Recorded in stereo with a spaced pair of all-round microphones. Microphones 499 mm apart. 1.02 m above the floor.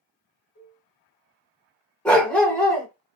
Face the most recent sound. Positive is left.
turn(degrees=5)  # may be behind; listen again after turning